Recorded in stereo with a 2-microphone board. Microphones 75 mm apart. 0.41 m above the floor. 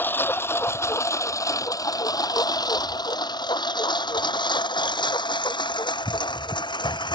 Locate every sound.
0.0 s a lawn mower: 30° left (ahead or behind); by 7.2 s 80° left